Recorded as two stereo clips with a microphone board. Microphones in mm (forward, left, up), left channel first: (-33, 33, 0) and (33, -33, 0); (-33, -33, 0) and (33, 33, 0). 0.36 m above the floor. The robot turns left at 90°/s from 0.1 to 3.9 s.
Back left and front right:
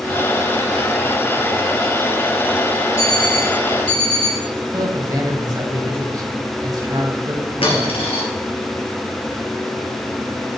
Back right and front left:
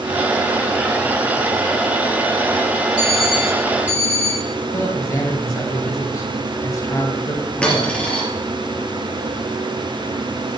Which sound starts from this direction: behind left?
A dropped coin, at 7.6 s.